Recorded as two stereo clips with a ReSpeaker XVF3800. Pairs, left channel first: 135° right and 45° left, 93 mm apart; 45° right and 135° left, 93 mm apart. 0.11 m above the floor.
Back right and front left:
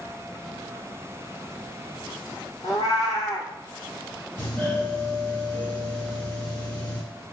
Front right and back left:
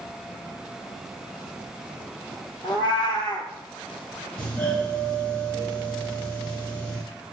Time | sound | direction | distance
2.6 | a cat meowing | 85° right | 1.0 m
4.4 | a doorbell | 105° right | 1.5 m